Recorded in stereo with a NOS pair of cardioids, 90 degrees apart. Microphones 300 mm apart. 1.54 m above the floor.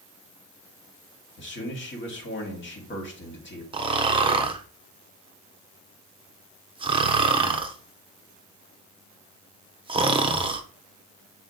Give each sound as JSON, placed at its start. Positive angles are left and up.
{"t": 1.4, "sound": "a man speaking", "azimuth_deg": 40, "distance_m": 2.0}
{"t": 3.7, "sound": "snoring", "azimuth_deg": -20, "distance_m": 0.8}